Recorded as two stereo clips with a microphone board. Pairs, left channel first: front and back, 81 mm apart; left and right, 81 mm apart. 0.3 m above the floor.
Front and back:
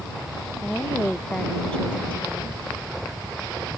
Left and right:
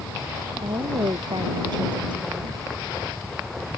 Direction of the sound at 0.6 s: 80° right.